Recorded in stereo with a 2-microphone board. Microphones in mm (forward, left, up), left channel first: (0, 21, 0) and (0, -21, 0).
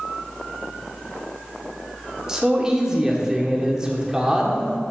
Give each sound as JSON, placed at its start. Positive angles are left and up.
{"t": 2.3, "sound": "a man speaking", "side_deg": -15, "distance_m": 1.7}